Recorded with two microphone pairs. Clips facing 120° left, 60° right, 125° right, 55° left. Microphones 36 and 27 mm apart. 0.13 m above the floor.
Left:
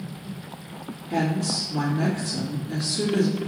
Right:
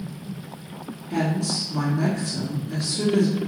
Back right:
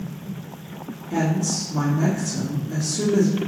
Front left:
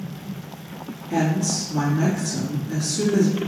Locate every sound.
1.1 s a woman speaking: 55° left, 1.9 m